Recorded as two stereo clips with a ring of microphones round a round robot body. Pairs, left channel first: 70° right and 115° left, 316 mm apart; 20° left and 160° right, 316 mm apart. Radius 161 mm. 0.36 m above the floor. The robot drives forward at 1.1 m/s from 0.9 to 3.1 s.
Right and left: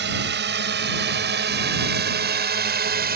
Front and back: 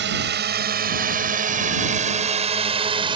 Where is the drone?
160° left; by 3.2 s 140° left.